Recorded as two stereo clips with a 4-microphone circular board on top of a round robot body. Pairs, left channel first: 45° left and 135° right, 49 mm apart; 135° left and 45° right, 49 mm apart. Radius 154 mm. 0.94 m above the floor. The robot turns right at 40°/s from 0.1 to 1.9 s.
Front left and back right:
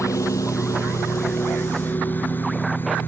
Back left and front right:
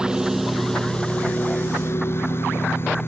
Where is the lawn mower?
30° left; by 3.1 s 95° left.